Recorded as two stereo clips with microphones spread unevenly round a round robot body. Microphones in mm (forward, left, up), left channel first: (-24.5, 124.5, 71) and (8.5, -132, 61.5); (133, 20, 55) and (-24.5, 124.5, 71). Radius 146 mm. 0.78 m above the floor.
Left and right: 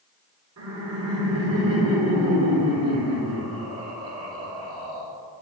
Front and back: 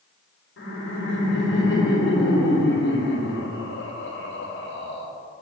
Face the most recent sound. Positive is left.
turn(degrees=-45)